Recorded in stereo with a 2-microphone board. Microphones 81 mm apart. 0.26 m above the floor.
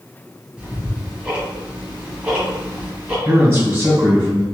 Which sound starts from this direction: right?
A man speaking, at 3.2 s.